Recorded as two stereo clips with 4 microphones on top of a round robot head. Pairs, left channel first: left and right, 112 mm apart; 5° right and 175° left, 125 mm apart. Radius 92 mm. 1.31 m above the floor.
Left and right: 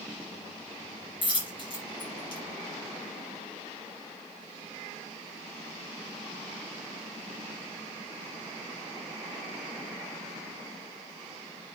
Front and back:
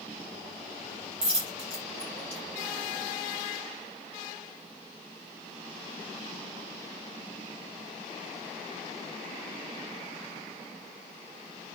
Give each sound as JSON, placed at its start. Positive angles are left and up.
{"t": 1.2, "sound": "a dropped coin", "azimuth_deg": 135, "distance_m": 4.5}